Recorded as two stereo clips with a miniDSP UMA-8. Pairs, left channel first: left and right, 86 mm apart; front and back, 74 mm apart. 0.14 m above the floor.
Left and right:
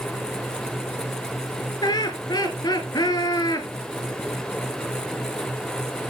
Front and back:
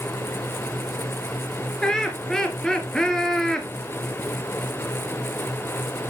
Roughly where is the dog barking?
No dog barking in this recording.